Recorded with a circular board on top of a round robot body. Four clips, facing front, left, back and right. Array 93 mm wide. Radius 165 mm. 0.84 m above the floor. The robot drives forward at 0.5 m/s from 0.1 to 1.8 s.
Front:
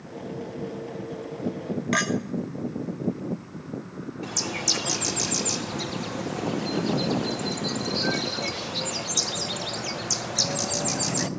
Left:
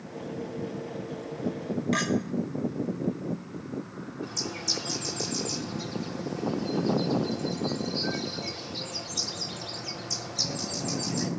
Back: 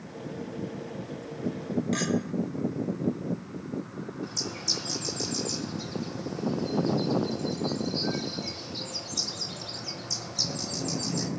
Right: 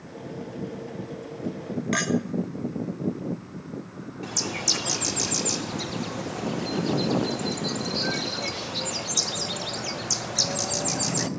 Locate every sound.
1.9 s a clink: 25° right, 1.2 m
4.2 s a bird: 40° right, 0.8 m